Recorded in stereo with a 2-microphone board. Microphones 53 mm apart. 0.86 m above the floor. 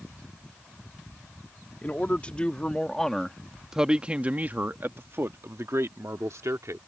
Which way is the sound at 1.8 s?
30° left (ahead or behind).